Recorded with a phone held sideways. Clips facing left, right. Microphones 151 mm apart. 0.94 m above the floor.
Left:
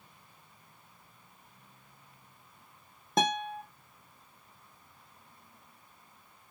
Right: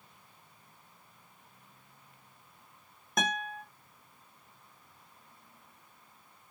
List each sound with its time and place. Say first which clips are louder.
3.2 s a guitar: left 5 dB; 30° left (ahead or behind), 0.7 m